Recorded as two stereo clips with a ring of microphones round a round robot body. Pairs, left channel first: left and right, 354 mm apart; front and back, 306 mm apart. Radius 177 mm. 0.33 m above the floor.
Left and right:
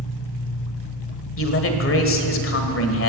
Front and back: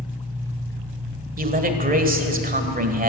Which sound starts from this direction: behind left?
A man speaking, at 1.4 s.